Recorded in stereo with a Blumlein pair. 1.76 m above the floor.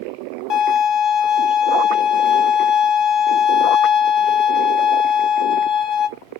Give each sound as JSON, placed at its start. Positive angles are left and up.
{"t": 0.5, "sound": "a violin", "azimuth_deg": 35, "distance_m": 0.7}